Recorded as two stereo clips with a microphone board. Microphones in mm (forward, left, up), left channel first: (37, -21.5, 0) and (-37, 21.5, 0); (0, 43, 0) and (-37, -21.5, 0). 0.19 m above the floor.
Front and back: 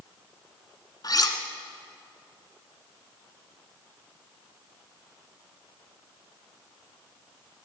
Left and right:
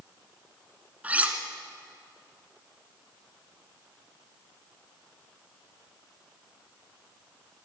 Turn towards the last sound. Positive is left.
turn(degrees=-55)